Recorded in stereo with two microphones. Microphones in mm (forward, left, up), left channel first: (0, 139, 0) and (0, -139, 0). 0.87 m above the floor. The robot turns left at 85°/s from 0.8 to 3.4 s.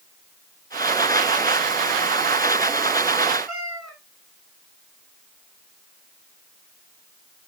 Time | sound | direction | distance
3.5 | a cat meowing | centre (ahead or behind) | 4.5 m